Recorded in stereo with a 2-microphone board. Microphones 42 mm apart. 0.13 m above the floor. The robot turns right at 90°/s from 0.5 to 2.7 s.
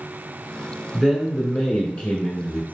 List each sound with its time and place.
0.9 s a man speaking: 15° right (ahead or behind), 1.3 m; by 2.6 s 25° left (ahead or behind), 1.3 m